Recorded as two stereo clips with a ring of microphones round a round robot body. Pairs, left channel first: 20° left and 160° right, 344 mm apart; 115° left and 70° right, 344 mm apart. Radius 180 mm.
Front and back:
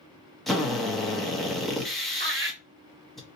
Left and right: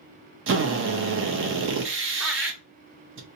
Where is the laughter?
155° right, 1.2 m.